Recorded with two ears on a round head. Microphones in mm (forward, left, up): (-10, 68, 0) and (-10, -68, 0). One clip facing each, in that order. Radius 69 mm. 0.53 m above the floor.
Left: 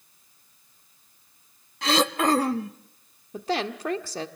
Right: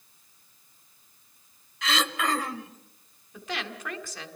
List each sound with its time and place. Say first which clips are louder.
1.8 s throat clearing: left 6 dB; 30° left (ahead or behind), 0.7 m
3.3 s a woman speaking: left 8 dB; 30° left (ahead or behind), 1.4 m